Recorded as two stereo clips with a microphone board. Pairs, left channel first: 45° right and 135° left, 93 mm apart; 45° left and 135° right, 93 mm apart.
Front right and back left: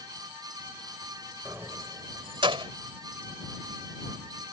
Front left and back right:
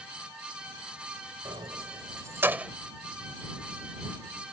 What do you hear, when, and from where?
1.4 s keys jangling: 155° right; by 2.7 s 145° left